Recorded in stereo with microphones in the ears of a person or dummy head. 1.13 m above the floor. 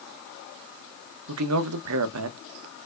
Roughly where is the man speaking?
Right.